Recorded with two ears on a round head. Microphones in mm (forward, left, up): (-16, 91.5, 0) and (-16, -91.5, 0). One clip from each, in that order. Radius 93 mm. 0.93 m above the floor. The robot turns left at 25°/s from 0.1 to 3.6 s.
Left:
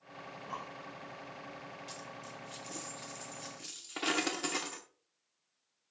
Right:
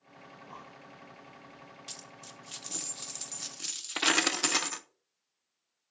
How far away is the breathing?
About 0.7 m.